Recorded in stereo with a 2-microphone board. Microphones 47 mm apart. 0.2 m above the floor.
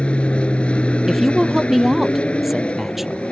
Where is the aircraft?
25° left (ahead or behind).